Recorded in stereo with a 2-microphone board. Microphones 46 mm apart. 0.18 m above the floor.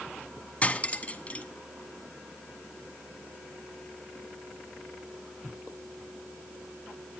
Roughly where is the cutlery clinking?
Left.